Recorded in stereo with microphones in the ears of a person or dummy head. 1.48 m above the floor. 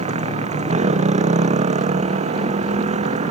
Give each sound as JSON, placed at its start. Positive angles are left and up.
{"t": 0.0, "sound": "a motorcycle", "side_deg": -40}